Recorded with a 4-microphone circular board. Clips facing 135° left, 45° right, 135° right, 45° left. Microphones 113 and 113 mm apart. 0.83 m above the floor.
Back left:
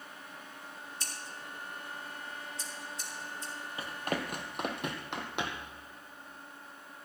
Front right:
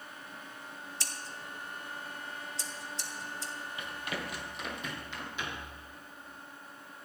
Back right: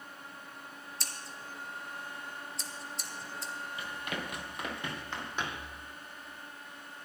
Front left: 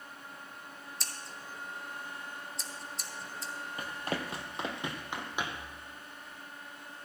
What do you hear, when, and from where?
1.0 s scissors: 45° right, 1.2 m
3.8 s running footsteps: 85° left, 1.6 m; by 5.7 s 125° left, 2.5 m